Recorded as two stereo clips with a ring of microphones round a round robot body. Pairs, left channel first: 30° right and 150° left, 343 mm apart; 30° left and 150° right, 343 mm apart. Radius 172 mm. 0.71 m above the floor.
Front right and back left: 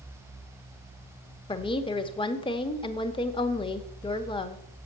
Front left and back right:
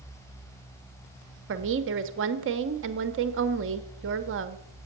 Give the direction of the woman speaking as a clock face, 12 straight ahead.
3 o'clock.